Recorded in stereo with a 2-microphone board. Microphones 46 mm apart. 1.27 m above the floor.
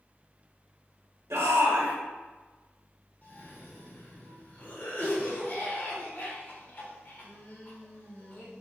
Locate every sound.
1.3 s a shout: 85° right, 1.2 m
3.2 s a cough: 50° left (ahead or behind), 1.4 m